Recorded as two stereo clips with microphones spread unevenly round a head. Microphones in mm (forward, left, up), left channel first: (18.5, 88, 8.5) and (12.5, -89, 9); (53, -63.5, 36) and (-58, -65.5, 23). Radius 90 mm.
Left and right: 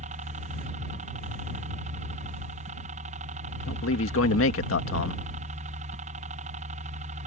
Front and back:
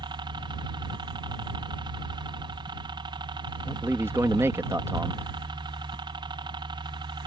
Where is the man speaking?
105° left.